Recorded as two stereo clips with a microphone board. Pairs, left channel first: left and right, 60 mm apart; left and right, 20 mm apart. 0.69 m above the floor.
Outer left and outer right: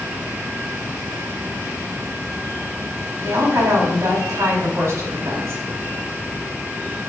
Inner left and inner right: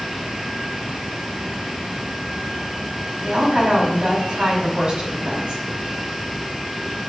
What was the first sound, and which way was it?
A woman speaking, 65° right (ahead or behind).